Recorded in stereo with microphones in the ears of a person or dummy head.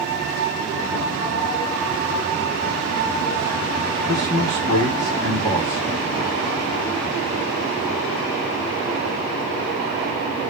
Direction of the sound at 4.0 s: 15° left (ahead or behind).